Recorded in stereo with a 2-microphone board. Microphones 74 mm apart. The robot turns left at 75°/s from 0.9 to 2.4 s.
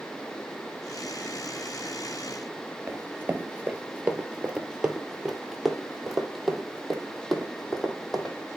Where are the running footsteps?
30° right (ahead or behind), 1.4 m; by 8.3 s 5° left (ahead or behind), 3.5 m.